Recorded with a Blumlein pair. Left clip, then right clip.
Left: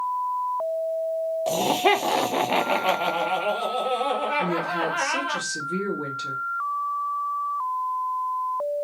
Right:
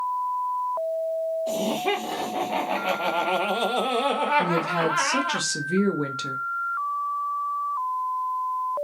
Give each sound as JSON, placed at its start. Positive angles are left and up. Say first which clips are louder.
{"t": 1.5, "sound": "laughter", "louder": "left 5 dB", "azimuth_deg": 55, "distance_m": 1.2}
{"t": 4.4, "sound": "a woman speaking", "louder": "right 1 dB", "azimuth_deg": -25, "distance_m": 0.9}